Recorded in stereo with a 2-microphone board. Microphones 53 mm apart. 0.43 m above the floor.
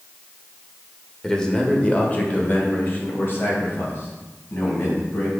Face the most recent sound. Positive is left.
turn(degrees=55)  # may be behind; listen again after turning